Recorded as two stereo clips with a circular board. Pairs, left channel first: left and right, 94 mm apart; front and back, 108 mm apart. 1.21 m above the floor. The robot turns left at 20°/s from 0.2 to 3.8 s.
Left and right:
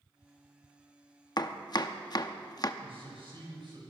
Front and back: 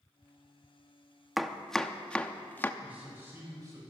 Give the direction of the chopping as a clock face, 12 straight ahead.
9 o'clock.